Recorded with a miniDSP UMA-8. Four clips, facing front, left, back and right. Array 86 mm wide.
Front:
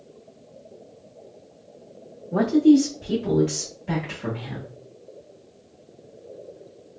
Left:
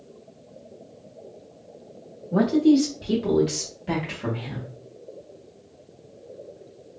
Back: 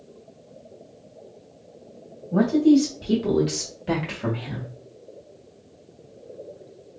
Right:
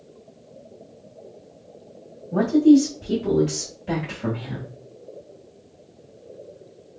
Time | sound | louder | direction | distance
2.3 | a man speaking | right 3 dB, front 1 dB | 55° left | 0.9 m